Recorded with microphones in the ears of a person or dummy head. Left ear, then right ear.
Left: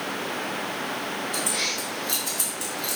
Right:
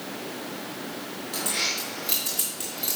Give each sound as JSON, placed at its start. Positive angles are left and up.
{"t": 1.3, "sound": "keys jangling", "side_deg": -25, "distance_m": 2.0}